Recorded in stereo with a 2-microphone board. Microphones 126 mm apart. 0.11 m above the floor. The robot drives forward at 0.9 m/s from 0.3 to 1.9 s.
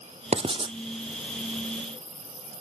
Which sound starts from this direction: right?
Writing, at 0.3 s.